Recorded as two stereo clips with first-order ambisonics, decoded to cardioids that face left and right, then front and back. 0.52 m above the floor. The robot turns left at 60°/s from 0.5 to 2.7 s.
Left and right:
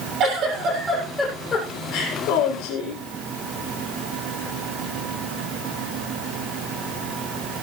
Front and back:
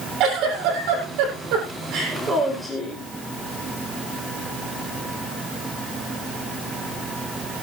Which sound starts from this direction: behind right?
A giggle, at 0.2 s.